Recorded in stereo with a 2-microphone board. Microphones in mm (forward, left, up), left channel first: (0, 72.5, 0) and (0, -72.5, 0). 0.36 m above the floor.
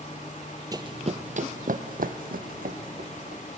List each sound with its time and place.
0.7 s running footsteps: 25° right (ahead or behind), 0.6 m; by 3.4 s 75° right (ahead or behind), 2 m